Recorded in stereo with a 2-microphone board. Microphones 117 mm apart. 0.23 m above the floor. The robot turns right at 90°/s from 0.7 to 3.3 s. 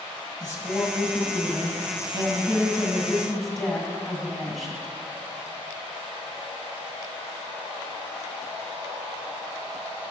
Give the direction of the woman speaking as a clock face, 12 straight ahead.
8 o'clock.